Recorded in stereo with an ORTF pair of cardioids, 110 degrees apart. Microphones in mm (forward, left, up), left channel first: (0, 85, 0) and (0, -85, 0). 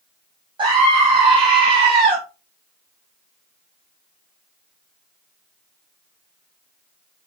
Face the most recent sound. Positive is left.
turn(degrees=-30)